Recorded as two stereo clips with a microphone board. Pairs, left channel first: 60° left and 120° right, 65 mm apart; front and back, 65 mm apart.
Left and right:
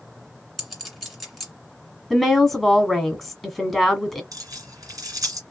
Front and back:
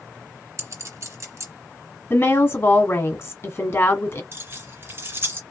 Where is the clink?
150° left, 2.0 m.